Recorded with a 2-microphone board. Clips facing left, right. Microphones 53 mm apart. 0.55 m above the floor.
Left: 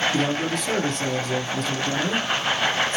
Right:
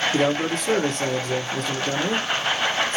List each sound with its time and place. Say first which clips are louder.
0.1 s a man speaking: right 2 dB; 40° right (ahead or behind), 0.9 m